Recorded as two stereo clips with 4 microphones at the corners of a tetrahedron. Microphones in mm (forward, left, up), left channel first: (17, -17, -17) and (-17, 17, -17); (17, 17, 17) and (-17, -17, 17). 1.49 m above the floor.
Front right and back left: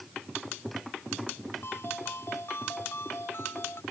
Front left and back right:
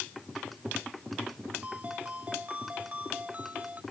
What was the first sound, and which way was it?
A ringtone, 75° right.